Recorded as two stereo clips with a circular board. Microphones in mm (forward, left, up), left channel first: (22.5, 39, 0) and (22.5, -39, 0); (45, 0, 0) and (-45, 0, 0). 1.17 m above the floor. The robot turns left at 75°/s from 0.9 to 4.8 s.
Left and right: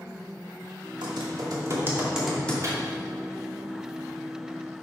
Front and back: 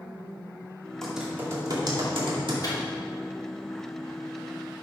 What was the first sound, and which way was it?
Typing on a keyboard, 85° right.